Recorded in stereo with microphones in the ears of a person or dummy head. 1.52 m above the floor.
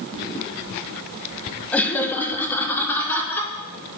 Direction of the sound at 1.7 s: 5° left (ahead or behind).